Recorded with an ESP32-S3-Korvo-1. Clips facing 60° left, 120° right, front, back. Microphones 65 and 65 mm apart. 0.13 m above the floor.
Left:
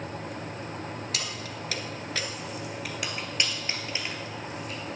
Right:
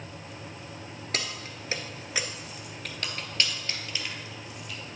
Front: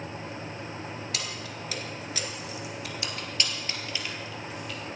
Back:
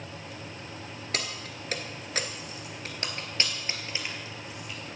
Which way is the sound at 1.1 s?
155° right.